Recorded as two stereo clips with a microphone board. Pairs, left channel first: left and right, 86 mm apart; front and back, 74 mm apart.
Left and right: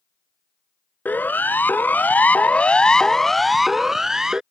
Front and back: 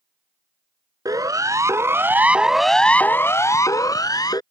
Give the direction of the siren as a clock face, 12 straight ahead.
7 o'clock.